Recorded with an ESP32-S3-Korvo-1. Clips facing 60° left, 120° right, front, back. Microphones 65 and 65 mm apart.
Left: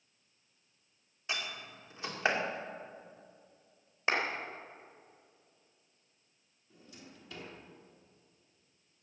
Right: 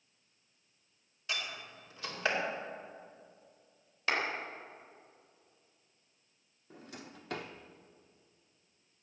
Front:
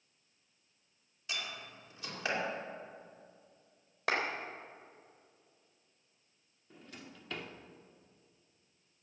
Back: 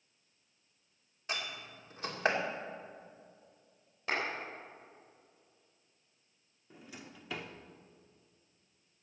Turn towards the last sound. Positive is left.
turn(degrees=-100)